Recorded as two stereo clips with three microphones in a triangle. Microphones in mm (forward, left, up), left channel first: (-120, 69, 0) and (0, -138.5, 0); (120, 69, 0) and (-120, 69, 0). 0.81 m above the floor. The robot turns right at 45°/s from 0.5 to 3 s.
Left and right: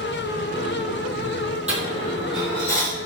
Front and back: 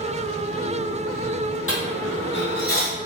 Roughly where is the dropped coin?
Ahead.